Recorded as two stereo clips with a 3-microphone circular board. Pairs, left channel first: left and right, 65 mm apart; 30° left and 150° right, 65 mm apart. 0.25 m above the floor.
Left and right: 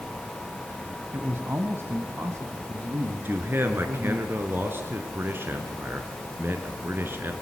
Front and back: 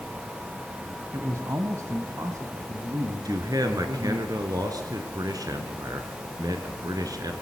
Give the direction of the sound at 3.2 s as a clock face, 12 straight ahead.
5 o'clock.